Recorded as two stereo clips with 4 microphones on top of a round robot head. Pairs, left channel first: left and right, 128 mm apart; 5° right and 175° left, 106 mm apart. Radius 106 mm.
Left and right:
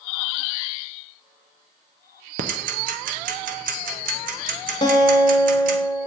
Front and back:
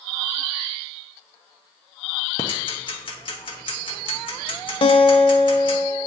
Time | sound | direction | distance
2.4 | ticking | 60° right | 0.6 m
4.8 | a guitar | 30° left | 0.8 m